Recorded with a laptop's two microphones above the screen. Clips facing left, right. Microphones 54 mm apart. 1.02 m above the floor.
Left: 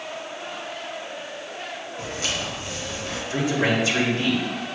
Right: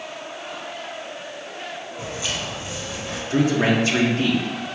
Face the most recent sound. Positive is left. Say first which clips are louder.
# right 4 dB
turn(degrees=-40)  # may be behind; listen again after turning